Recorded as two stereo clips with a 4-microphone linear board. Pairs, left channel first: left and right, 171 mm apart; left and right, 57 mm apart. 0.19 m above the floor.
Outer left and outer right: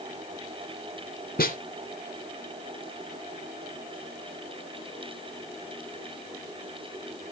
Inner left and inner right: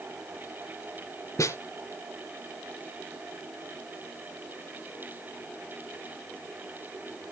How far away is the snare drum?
About 2 m.